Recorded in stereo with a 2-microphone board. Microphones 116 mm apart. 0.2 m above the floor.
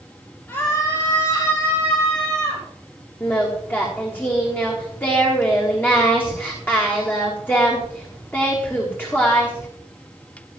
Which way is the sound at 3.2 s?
15° left (ahead or behind).